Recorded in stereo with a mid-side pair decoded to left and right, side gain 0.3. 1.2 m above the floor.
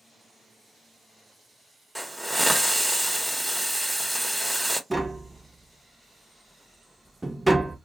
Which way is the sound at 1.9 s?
Straight ahead.